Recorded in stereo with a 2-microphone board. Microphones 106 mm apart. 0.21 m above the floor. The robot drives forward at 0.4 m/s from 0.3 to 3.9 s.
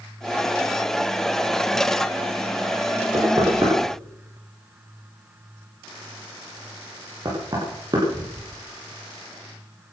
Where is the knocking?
40° right (ahead or behind), 6 m.